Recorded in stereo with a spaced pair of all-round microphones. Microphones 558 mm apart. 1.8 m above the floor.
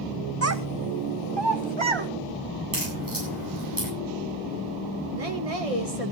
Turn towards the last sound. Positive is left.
turn(degrees=-85)